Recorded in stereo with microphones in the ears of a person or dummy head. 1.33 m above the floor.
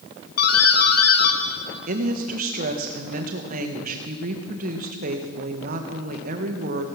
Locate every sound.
0.4 s a doorbell: 55° left (ahead or behind), 1.0 m
1.9 s a woman speaking: 50° right (ahead or behind), 1.4 m